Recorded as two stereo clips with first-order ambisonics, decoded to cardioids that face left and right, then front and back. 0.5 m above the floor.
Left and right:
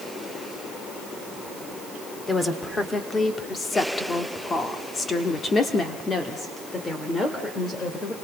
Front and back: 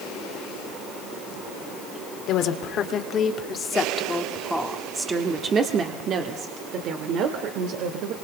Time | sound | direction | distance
2.3 | a woman speaking | 15° left | 1.6 m